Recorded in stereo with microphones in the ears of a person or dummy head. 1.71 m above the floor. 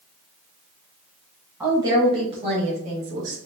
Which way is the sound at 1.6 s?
15° right (ahead or behind).